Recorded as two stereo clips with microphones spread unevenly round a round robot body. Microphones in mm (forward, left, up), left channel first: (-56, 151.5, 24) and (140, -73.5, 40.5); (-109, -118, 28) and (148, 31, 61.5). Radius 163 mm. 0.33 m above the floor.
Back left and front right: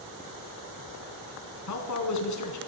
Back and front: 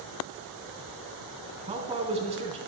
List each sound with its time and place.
1.7 s a man speaking: 105° left, 3.5 m